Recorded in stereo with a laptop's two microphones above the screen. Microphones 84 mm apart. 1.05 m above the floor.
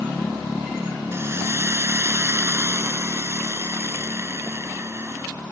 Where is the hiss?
30° right (ahead or behind).